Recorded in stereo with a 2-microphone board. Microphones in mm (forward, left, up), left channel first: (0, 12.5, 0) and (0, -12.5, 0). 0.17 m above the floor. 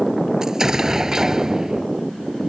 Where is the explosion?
20° right (ahead or behind).